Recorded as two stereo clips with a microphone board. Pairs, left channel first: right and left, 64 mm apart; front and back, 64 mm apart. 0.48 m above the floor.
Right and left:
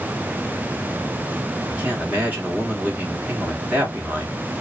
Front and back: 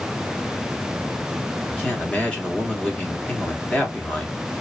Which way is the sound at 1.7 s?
55° left.